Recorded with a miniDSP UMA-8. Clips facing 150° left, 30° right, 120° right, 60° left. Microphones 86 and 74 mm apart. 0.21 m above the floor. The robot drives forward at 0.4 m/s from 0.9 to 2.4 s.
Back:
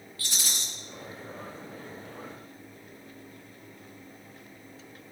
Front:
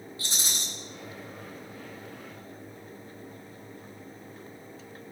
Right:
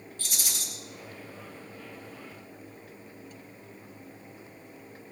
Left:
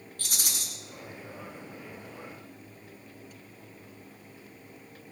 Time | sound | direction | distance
0.2 | a rattle | 35° left | 3 m